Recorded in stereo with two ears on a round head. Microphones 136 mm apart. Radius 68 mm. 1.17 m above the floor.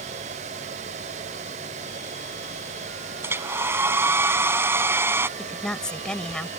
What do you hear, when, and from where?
3.2 s a hair dryer: 15° right (ahead or behind)
5.4 s a woman speaking: 5° left (ahead or behind)